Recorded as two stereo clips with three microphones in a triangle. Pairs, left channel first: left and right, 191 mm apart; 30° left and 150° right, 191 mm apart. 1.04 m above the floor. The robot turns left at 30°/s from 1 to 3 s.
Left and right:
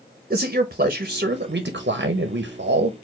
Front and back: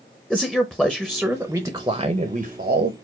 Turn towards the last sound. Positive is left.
turn(degrees=-115)